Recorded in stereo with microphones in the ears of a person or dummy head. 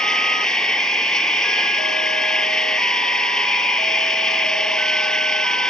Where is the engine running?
Centre (ahead or behind).